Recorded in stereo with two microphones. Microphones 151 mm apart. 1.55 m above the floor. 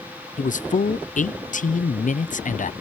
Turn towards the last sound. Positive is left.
turn(degrees=60)  # may be behind; listen again after turning